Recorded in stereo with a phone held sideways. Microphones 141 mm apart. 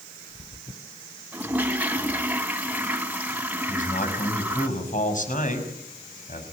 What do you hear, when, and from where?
1.3 s a toilet flushing: 10° right (ahead or behind), 2.5 m
3.7 s a man speaking: 60° left (ahead or behind), 6 m